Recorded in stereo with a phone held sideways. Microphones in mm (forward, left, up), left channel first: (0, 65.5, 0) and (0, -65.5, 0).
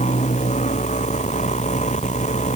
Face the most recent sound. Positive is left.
turn(degrees=65)  # may be behind; listen again after turning